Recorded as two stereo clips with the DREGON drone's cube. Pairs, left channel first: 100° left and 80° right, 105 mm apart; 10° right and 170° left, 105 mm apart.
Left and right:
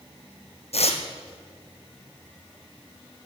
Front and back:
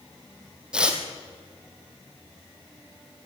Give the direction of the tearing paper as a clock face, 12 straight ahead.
9 o'clock.